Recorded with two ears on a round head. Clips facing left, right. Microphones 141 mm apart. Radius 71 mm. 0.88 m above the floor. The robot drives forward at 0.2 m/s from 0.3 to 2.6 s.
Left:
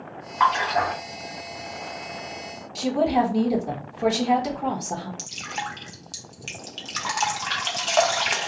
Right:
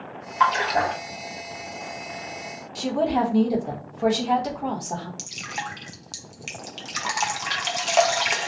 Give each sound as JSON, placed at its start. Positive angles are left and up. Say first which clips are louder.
{"t": 0.4, "sound": "a splash", "louder": "even", "side_deg": -40, "distance_m": 1.1}
{"t": 2.8, "sound": "a woman speaking", "louder": "left 1 dB", "side_deg": 5, "distance_m": 1.0}
{"t": 5.2, "sound": "dripping", "louder": "left 1 dB", "side_deg": -10, "distance_m": 0.7}